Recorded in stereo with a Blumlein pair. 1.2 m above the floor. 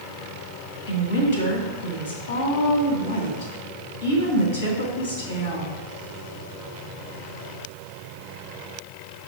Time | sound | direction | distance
0.9 | a woman speaking | 65° left | 2.0 m